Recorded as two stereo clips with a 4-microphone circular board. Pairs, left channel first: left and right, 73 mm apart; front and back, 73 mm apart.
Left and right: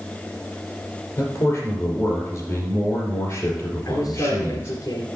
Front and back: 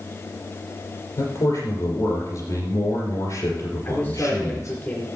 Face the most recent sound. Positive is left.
turn(degrees=55)